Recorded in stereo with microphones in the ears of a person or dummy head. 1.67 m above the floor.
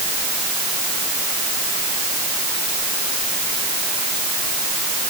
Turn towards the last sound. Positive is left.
No sound to turn to.